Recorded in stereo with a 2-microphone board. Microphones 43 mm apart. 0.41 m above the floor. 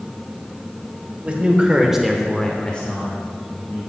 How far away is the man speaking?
About 1.5 m.